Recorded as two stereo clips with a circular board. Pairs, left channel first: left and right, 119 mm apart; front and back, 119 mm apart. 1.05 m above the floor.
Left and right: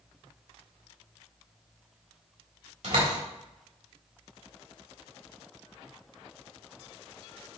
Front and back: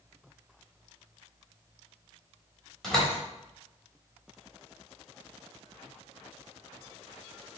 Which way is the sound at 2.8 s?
90° right.